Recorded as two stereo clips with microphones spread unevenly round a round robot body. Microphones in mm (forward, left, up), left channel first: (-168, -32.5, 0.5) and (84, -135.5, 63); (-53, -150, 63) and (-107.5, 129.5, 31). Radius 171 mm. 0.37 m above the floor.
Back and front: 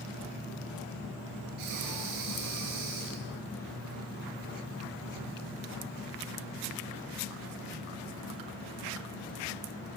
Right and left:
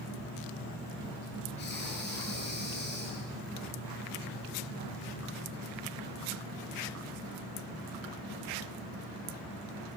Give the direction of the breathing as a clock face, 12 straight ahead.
1 o'clock.